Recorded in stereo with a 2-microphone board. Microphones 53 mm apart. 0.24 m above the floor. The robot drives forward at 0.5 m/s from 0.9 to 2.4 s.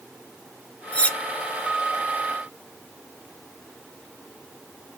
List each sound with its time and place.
0.9 s cutlery clinking: 25° left (ahead or behind), 0.6 m